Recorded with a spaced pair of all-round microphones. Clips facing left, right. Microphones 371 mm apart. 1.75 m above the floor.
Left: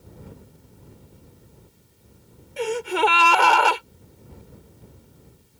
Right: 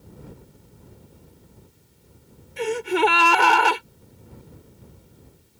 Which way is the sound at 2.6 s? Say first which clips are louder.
Right 2 dB; 30° right (ahead or behind).